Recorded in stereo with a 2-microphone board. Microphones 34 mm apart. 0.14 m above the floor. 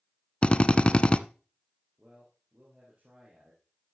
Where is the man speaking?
45° right (ahead or behind), 4 m.